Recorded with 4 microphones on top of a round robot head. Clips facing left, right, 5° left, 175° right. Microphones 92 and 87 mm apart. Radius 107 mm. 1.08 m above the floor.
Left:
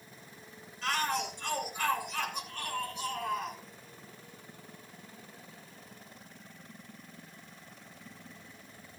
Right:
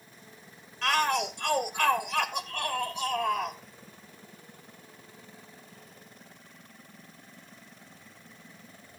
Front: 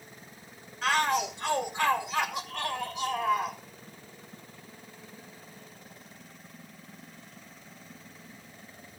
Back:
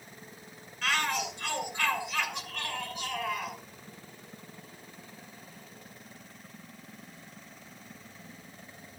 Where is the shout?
75° right, 2 m.